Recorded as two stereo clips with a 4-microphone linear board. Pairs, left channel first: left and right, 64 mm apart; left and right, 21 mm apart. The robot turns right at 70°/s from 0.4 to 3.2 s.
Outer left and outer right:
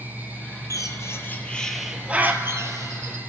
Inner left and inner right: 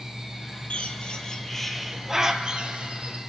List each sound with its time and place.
0.7 s a bird: 65° left (ahead or behind), 0.6 m; by 3.2 s 70° right (ahead or behind), 0.6 m